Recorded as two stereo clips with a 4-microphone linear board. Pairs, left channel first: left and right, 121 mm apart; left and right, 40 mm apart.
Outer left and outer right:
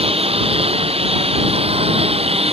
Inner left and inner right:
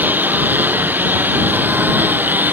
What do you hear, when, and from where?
0.0 s a lawn mower: 55° right (ahead or behind)